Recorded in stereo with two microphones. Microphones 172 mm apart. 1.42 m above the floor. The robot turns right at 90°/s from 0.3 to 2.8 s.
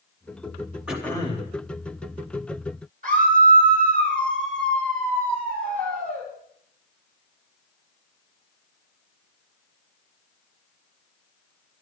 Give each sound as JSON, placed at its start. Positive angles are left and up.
{"t": 0.9, "sound": "throat clearing", "azimuth_deg": -5, "distance_m": 2.5}
{"t": 3.0, "sound": "a scream", "side_deg": -55, "distance_m": 8.5}